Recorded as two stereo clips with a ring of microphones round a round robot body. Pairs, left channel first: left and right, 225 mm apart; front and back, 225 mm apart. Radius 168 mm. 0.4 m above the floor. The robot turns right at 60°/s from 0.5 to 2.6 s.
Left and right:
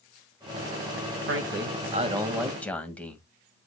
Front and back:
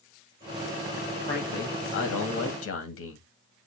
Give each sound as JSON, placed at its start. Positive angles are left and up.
{"t": 1.3, "sound": "a man speaking", "azimuth_deg": -75, "distance_m": 2.5}